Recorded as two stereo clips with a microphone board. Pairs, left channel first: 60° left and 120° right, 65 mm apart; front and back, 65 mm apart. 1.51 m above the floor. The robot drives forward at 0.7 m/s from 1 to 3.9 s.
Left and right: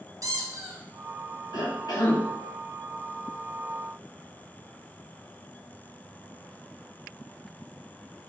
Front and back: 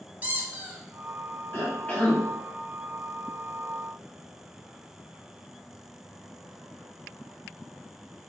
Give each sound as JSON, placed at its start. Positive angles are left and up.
{"t": 0.2, "sound": "a squeak", "azimuth_deg": -115, "distance_m": 0.6}
{"t": 1.5, "sound": "a cough", "azimuth_deg": 55, "distance_m": 1.2}